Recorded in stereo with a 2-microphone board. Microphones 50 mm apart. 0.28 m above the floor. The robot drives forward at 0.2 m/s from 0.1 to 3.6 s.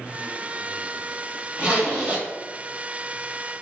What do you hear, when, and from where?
1.6 s a zipper: 25° right (ahead or behind), 1.0 m